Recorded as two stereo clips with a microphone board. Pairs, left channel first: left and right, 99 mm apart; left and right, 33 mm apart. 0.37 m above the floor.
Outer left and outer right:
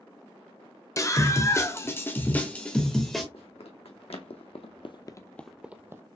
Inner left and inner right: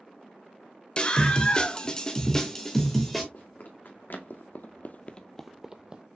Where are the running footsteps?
70° left (ahead or behind), 1.6 m; by 6.0 s 25° right (ahead or behind), 0.8 m.